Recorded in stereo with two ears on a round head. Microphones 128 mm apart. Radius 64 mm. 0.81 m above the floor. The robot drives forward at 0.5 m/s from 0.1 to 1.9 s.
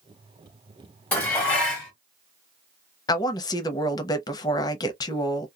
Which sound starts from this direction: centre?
Dishes clattering, at 1.1 s.